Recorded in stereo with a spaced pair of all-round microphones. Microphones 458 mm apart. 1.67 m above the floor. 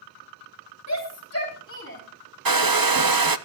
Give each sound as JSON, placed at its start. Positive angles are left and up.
{"t": 0.9, "sound": "a shout", "side_deg": 35, "distance_m": 3.5}
{"t": 2.5, "sound": "a hair dryer", "side_deg": -50, "distance_m": 0.7}